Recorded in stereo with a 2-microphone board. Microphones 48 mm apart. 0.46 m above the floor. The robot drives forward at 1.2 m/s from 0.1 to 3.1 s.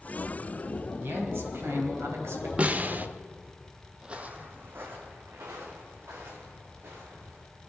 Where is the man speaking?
50° right (ahead or behind), 2.5 m; by 3.1 s 55° right (ahead or behind), 2.5 m.